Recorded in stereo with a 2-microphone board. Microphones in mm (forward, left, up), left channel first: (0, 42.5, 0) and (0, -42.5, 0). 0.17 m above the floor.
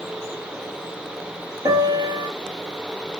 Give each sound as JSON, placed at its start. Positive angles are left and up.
{"t": 1.6, "sound": "a piano", "side_deg": -50, "distance_m": 3.0}